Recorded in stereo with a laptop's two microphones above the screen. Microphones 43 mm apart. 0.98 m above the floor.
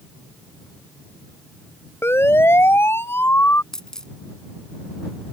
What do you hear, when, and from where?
2.0 s a siren: 75° left (ahead or behind); by 3.6 s 65° left (ahead or behind)
3.7 s a dropped coin: 15° left (ahead or behind)